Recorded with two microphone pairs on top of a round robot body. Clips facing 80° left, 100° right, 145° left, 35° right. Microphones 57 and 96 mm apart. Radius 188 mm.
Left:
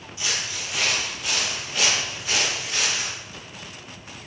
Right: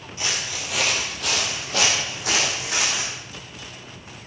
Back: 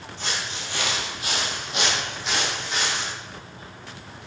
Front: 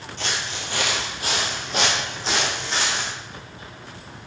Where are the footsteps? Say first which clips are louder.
Right 1 dB, front 2 dB; 55° right, 1.6 m; by 3.1 s 95° right, 4 m.